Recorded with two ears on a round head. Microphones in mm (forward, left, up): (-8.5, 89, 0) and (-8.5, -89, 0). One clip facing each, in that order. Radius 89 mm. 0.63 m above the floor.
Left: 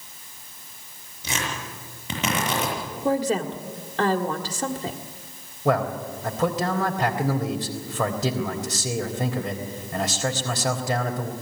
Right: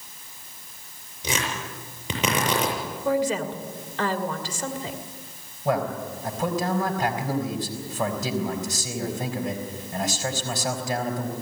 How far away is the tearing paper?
About 7 m.